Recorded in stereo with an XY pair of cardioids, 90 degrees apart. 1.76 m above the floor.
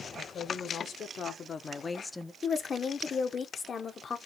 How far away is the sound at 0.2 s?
About 2.5 m.